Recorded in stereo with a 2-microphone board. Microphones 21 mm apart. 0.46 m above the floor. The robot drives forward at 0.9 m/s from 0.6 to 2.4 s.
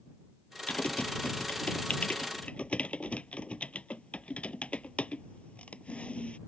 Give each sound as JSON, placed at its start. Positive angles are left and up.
{"t": 0.7, "sound": "typing on a keyboard", "side_deg": 85}